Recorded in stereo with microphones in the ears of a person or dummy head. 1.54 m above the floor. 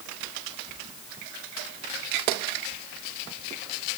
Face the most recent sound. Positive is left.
No sound to turn to.